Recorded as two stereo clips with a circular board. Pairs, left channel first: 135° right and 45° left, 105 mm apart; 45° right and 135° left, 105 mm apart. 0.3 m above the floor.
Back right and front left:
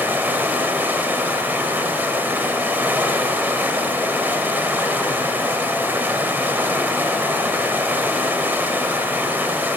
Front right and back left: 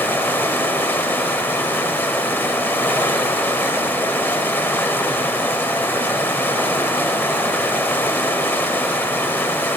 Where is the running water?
Straight ahead, 0.8 m.